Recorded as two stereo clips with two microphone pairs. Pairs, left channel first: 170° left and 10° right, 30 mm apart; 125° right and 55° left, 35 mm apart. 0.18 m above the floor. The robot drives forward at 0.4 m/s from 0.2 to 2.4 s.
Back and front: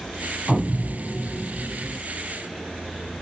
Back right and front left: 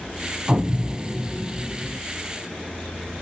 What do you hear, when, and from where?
0.5 s an explosion: 100° left, 0.6 m; by 2.0 s 150° left, 0.9 m